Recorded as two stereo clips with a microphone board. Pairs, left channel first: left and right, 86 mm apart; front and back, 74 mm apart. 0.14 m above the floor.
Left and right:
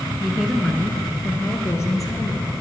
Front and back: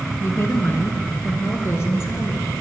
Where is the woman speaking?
5° right, 1.2 m; by 2.6 s 50° left, 2.5 m.